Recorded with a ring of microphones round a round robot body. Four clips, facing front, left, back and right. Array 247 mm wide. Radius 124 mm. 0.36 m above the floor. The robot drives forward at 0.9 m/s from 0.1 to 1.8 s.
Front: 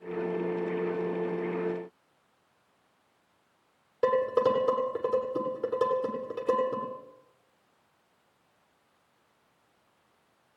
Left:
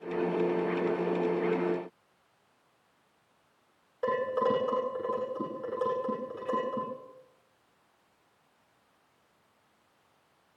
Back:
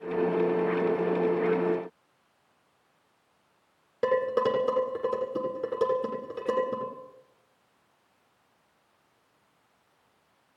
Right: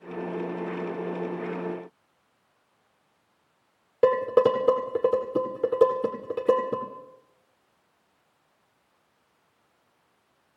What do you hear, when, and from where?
4.0 s dishes clattering: 100° right, 8 m